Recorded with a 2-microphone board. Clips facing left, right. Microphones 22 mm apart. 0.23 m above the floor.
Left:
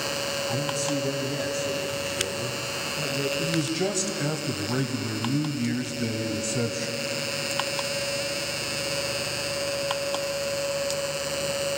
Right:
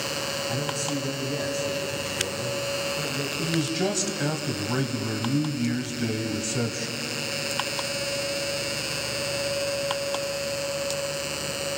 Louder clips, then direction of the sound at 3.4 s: Even; 10° right (ahead or behind).